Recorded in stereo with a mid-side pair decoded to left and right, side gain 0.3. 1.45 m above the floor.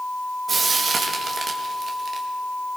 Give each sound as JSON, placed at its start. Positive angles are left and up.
{"t": 0.5, "sound": "frying", "azimuth_deg": -65, "distance_m": 2.5}